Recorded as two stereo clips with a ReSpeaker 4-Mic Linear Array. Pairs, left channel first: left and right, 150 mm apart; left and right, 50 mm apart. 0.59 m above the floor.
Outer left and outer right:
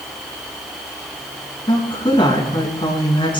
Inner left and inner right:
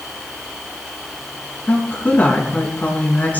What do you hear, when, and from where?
1.7 s a woman speaking: 30° left (ahead or behind), 6 m